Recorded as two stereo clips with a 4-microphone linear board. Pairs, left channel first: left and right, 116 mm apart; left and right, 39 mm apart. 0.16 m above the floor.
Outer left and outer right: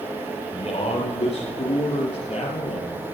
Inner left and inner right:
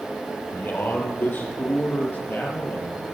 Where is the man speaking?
60° left (ahead or behind), 4.5 m; by 3.0 s 70° left (ahead or behind), 3.5 m.